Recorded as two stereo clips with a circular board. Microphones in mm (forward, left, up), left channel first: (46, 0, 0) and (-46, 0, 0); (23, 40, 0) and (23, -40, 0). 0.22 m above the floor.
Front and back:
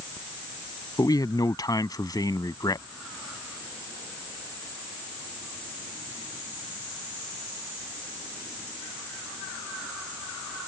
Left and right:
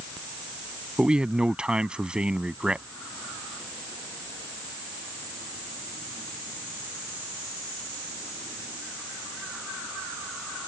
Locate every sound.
1.0 s a man speaking: 15° right